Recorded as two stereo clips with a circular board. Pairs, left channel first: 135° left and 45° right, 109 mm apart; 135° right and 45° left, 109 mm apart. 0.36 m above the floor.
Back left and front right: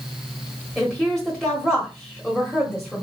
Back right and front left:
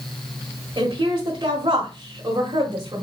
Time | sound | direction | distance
0.8 | a woman speaking | 45° left | 1.3 m